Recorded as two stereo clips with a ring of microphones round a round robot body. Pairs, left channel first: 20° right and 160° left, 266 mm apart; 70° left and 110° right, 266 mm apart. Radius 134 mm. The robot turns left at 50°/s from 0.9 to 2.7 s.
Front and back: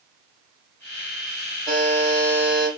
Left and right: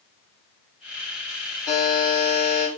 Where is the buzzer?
75° left, 1.6 m; by 2.7 s 25° left, 1.6 m.